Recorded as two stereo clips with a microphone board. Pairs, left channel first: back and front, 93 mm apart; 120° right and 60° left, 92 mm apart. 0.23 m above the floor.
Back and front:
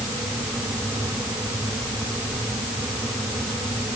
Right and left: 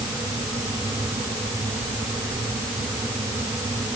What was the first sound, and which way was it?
Only background noise.